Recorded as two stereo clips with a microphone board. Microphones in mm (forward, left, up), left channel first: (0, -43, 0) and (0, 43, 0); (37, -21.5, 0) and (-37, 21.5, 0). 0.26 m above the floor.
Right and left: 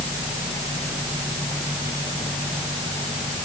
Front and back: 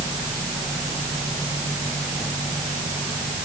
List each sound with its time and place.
Only background noise.